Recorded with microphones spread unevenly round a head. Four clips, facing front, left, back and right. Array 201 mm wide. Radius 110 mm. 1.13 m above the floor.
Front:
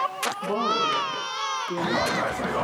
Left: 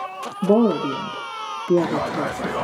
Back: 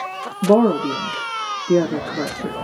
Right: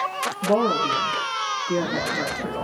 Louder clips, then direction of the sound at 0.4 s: Left 4 dB, back 11 dB; 145° left.